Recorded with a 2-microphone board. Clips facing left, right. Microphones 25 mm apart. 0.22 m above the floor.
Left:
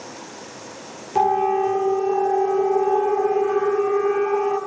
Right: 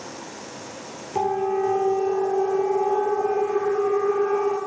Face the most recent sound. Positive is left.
turn(degrees=40)  # may be behind; listen again after turning